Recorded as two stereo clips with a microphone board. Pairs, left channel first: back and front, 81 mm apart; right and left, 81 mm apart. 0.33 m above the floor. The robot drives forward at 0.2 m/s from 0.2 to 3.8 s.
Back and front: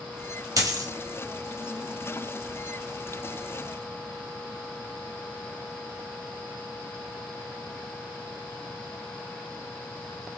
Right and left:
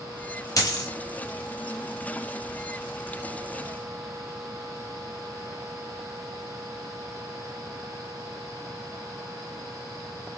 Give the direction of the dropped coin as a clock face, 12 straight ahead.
1 o'clock.